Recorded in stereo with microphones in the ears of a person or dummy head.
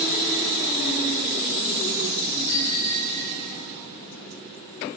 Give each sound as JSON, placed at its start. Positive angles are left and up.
{"t": 2.5, "sound": "a bicycle bell", "side_deg": -85, "distance_m": 7.5}